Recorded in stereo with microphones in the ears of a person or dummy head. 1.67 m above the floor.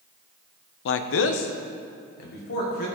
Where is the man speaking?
70° left (ahead or behind), 0.5 m; by 2.9 s 45° left (ahead or behind), 1.8 m.